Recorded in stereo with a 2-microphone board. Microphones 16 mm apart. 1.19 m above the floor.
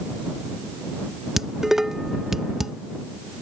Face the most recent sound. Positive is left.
turn(degrees=-30)  # may be behind; listen again after turning